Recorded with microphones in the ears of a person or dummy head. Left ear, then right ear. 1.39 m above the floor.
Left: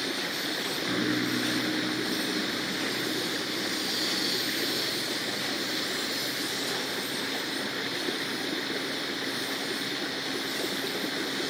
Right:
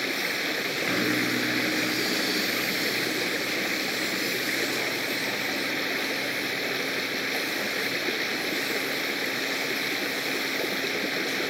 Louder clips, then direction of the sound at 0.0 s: Right 3 dB; 20° right (ahead or behind).